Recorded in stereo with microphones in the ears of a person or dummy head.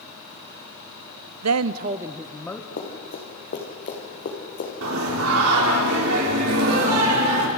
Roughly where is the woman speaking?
Right.